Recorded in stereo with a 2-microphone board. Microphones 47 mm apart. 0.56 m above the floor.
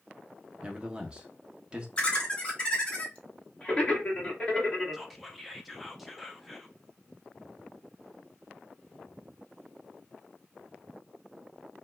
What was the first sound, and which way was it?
A man speaking, 20° right (ahead or behind).